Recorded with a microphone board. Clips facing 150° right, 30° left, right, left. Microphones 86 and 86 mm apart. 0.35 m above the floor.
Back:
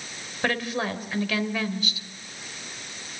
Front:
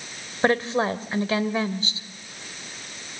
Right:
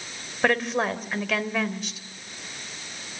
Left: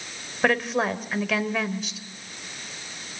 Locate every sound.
0.4 s a woman speaking: straight ahead, 1.6 m